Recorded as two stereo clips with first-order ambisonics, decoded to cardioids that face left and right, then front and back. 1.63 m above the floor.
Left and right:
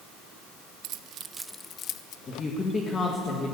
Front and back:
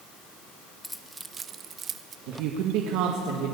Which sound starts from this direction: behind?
A woman speaking, at 2.3 s.